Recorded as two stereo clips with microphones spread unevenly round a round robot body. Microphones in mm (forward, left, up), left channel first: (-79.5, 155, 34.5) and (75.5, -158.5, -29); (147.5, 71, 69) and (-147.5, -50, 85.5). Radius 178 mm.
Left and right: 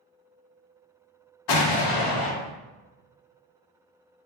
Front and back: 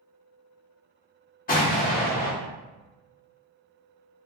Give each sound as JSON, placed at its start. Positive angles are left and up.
{"t": 1.5, "sound": "an explosion", "azimuth_deg": 90, "distance_m": 0.6}